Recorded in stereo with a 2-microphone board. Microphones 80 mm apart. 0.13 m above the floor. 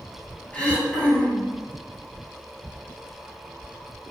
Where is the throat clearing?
15° left (ahead or behind), 0.7 m.